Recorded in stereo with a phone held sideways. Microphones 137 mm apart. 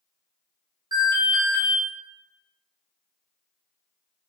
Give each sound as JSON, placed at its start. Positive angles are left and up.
{"t": 0.9, "sound": "an alarm", "side_deg": -30, "distance_m": 1.6}